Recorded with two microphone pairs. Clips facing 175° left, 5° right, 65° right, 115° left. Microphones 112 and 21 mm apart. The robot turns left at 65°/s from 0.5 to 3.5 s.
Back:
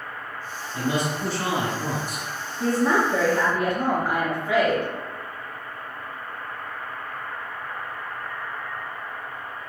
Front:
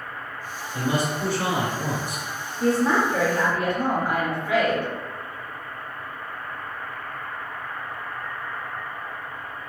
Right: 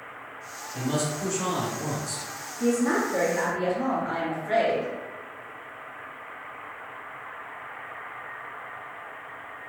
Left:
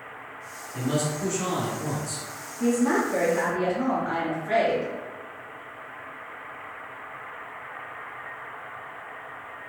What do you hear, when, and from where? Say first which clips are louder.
0.7 s a man speaking: front 1 dB, left 1 dB; 65° left, 1.1 m; by 2.3 s 30° right, 1.1 m
2.6 s a woman speaking: front 1 dB, left 1 dB; 115° right, 1.4 m; by 4.9 s 175° right, 1.4 m